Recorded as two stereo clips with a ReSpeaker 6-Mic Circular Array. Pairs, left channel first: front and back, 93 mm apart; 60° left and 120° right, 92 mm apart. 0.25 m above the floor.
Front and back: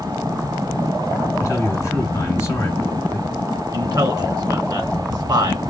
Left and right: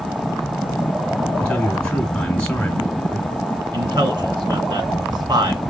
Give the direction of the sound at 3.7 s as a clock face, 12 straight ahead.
5 o'clock.